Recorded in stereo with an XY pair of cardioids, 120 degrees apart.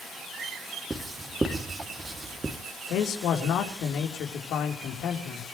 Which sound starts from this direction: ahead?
Writing, at 0.9 s.